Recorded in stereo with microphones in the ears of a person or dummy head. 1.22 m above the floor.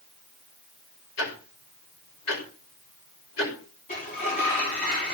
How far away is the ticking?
About 5 m.